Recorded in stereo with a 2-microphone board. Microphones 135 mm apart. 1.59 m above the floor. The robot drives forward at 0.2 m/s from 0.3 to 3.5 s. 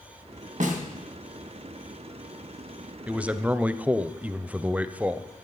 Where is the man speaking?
10° right (ahead or behind), 0.6 m.